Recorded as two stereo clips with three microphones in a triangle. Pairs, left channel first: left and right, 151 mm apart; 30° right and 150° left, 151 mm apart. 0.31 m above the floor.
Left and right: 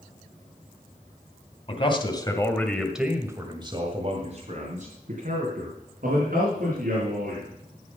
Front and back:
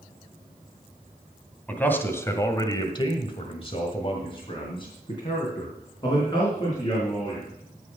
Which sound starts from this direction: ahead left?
A man speaking, at 1.7 s.